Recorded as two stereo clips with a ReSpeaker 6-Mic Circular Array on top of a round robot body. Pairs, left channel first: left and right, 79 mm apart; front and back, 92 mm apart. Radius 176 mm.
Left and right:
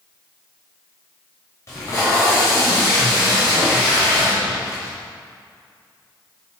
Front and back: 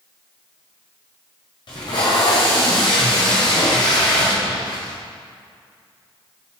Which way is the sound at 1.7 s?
35° left.